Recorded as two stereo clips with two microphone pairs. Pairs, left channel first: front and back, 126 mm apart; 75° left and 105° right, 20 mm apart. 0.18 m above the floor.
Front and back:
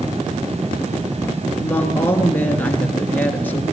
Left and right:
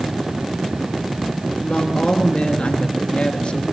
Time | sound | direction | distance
1.6 | a woman speaking | 75° left | 3 m